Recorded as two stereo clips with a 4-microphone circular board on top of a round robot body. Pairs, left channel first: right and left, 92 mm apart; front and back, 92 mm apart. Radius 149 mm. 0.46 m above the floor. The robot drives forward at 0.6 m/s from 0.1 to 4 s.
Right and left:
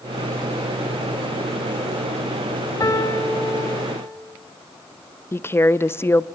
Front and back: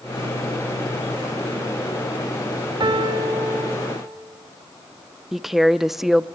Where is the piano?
140° right, 1.2 m; by 4.2 s 155° right, 1.8 m.